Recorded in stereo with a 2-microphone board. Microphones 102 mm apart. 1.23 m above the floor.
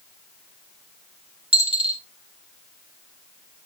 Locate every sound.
1.5 s a dropped coin: 60° right (ahead or behind), 1.4 m